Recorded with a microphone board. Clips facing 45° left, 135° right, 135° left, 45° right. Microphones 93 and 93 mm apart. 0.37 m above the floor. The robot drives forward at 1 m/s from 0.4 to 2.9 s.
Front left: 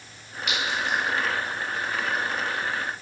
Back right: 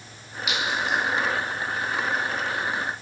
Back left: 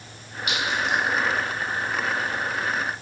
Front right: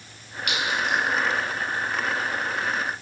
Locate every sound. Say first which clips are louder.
0.5 s a clink: back right 1 dB, even; 50° right, 1.9 m; by 1.0 s 65° right, 1.7 m